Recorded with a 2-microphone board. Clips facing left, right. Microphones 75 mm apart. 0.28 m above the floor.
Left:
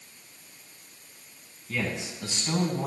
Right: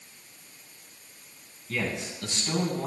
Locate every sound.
1.7 s a man speaking: 5° left (ahead or behind), 2 m; by 2.9 s 25° left (ahead or behind), 1.5 m